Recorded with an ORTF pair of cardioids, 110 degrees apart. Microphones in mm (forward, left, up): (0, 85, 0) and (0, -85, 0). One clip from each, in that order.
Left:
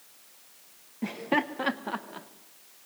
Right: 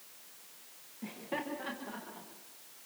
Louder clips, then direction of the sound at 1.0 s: Left 11 dB; 55° left.